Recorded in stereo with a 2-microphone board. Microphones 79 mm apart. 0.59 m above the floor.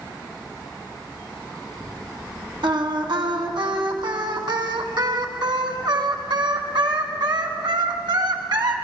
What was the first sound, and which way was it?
Singing, 75° right (ahead or behind).